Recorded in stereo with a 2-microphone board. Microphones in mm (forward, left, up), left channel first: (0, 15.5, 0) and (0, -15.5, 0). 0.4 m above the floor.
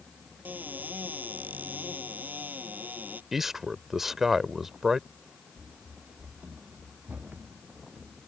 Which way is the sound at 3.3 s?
10° right (ahead or behind).